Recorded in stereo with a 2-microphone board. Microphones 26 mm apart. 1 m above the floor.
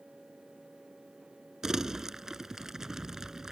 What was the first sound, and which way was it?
Crumpling, 25° right (ahead or behind).